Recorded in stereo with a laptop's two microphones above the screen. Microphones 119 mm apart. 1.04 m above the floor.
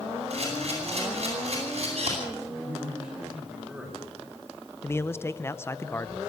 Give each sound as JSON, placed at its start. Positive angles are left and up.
{"t": 0.3, "sound": "a camera shutter", "side_deg": -60, "distance_m": 9.5}
{"t": 2.4, "sound": "a man speaking", "side_deg": -10, "distance_m": 5.5}
{"t": 4.8, "sound": "a man speaking", "side_deg": 20, "distance_m": 0.7}